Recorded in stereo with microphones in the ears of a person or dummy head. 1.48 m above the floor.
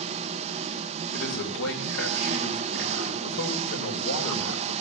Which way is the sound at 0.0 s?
40° right (ahead or behind).